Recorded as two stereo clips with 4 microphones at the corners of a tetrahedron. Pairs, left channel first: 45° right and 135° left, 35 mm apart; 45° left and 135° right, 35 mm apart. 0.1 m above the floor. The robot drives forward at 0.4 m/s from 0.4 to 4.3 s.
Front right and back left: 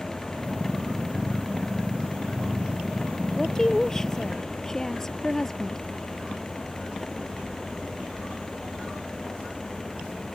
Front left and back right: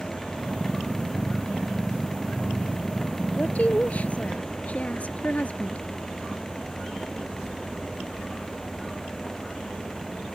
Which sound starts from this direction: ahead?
A woman speaking, at 3.3 s.